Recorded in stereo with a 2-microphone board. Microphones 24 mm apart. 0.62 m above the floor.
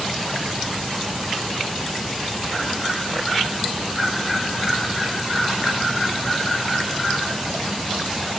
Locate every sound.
Only background noise.